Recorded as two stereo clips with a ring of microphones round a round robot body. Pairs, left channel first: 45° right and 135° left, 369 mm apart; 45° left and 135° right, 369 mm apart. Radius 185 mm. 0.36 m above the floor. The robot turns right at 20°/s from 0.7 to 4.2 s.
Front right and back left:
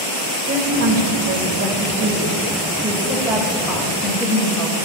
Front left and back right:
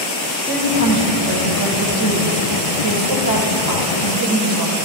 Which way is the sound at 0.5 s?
165° left.